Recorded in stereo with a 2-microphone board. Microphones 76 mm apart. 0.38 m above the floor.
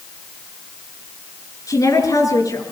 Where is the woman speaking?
50° left (ahead or behind), 6.5 m.